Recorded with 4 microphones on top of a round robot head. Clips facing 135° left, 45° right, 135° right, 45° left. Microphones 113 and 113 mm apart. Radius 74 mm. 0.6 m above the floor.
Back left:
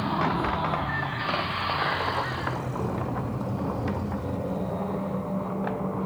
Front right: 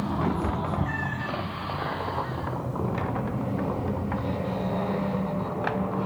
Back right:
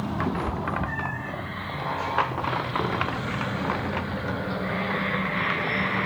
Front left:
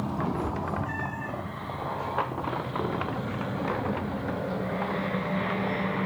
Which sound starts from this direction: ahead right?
A cat meowing, at 0.2 s.